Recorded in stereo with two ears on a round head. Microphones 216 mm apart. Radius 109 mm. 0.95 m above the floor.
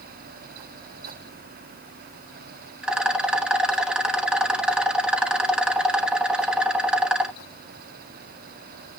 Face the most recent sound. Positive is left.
turn(degrees=-5)  # may be behind; listen again after turning